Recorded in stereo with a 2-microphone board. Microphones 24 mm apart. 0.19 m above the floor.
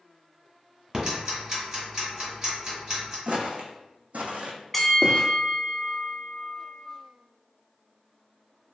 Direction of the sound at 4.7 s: 5° left (ahead or behind).